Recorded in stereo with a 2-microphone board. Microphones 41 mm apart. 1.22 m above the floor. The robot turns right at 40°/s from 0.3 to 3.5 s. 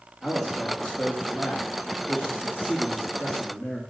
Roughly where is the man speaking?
Ahead.